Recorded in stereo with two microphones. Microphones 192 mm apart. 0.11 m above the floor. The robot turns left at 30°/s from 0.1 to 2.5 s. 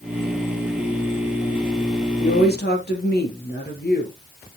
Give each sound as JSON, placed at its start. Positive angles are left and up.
{"t": 2.2, "sound": "a woman speaking", "side_deg": 60, "distance_m": 3.0}